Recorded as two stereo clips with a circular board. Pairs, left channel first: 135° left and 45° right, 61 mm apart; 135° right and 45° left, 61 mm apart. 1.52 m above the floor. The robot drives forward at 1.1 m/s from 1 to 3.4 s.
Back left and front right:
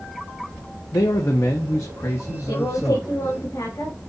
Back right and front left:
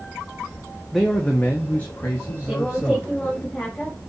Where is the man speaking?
140° left, 0.8 m; by 3.5 s 170° left, 3 m.